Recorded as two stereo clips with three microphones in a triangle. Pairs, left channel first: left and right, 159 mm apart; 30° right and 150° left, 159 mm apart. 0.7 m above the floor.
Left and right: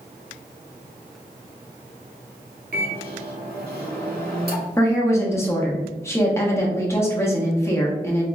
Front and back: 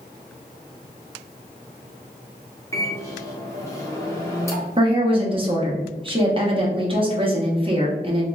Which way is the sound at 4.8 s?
150° left.